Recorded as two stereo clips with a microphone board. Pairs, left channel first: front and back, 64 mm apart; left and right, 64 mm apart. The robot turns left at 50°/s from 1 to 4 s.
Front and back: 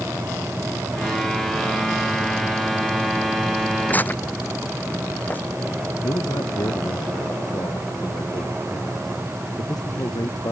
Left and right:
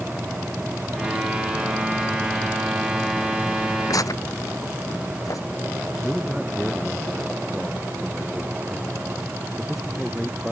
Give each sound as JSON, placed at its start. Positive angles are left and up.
{"t": 3.9, "sound": "tearing paper", "azimuth_deg": 65}
{"t": 6.0, "sound": "a man speaking", "azimuth_deg": 0}